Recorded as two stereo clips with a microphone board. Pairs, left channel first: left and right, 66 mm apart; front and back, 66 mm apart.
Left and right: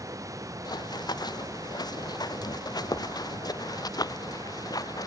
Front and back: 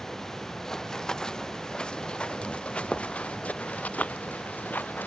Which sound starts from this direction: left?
Running footsteps, at 0.7 s.